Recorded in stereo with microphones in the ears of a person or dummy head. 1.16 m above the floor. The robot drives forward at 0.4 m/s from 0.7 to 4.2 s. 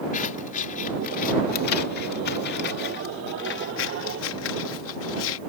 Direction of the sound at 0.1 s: 40° left (ahead or behind).